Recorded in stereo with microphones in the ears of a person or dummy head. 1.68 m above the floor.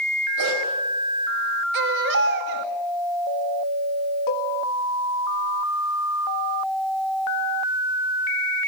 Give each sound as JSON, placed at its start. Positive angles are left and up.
{"t": 0.4, "sound": "a dog barking", "side_deg": -65, "distance_m": 5.0}
{"t": 1.7, "sound": "a baby crying", "side_deg": -60, "distance_m": 2.0}
{"t": 4.3, "sound": "a cowbell", "side_deg": 45, "distance_m": 1.4}